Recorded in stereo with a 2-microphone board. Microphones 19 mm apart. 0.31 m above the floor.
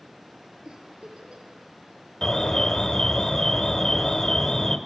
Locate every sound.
0.7 s a giggle: 65° right (ahead or behind), 6 m
2.2 s an alarm: 35° left (ahead or behind), 1.8 m